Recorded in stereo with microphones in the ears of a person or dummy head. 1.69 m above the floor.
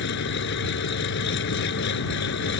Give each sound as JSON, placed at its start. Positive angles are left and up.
{"t": 0.0, "sound": "an engine running", "side_deg": 65}